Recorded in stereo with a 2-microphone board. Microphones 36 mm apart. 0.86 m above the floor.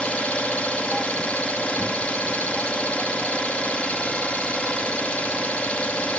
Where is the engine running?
35° left (ahead or behind), 0.7 m.